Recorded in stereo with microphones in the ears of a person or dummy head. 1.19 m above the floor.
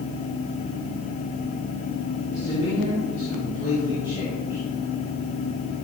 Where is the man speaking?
45° left (ahead or behind), 3 m; by 4.6 s 30° left (ahead or behind), 5.5 m.